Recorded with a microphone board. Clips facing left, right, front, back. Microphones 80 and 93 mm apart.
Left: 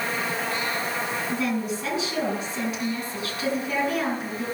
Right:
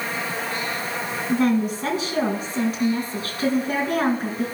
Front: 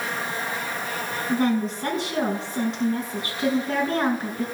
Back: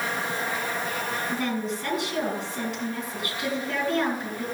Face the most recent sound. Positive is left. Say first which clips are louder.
# right 10 dB, front 10 dB
turn(degrees=-60)